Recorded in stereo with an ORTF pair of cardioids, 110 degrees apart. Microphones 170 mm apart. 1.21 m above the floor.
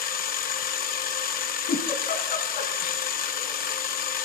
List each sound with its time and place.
0.0 s a machine running: 60° left, 1.0 m
1.7 s a giggle: 65° left, 2.5 m